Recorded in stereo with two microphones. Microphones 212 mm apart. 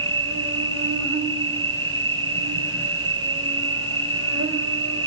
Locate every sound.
0.0 s an insect: 85° right, 3.5 m